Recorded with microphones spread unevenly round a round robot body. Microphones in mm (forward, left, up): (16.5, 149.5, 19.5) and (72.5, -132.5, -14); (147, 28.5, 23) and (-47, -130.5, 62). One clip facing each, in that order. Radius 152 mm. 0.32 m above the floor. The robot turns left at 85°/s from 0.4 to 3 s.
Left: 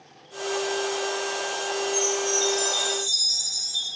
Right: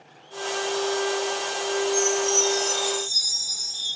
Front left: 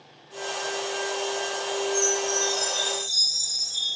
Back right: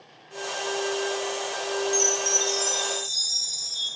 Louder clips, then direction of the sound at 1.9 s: Right 3 dB, front left 1 dB; 160° right.